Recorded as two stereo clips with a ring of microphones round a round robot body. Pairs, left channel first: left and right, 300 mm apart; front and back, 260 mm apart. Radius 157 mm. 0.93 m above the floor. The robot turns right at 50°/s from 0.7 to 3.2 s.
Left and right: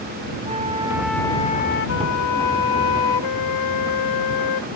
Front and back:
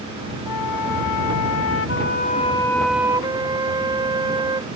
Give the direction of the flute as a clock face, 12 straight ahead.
1 o'clock.